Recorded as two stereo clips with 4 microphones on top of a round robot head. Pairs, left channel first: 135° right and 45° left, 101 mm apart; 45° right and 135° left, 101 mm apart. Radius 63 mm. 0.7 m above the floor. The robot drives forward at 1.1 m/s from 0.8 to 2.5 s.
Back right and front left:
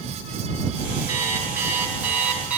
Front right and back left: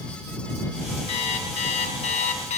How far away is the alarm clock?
About 4.5 m.